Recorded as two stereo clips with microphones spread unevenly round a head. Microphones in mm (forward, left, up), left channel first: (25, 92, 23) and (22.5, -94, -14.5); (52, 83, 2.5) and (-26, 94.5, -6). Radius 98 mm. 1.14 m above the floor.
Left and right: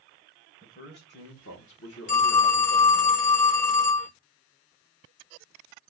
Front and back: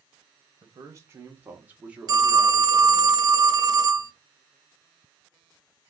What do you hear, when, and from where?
0.6 s a man speaking: 140° left, 1.2 m; by 3.1 s 85° left, 1.9 m
2.1 s a phone ringing: 130° left, 0.6 m